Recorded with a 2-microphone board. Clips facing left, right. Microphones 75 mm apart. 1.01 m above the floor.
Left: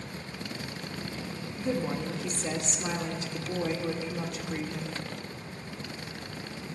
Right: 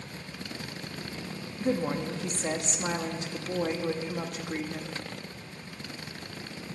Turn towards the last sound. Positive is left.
turn(degrees=-55)  # may be behind; listen again after turning